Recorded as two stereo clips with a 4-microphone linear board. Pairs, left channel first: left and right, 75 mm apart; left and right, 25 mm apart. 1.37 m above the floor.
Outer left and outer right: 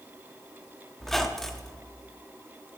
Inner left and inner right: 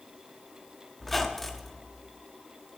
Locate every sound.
1.0 s a squeak: 5° left (ahead or behind), 0.9 m